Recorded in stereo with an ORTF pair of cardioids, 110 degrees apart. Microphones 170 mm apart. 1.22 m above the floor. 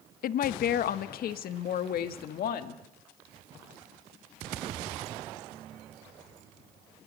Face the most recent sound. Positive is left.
turn(degrees=65)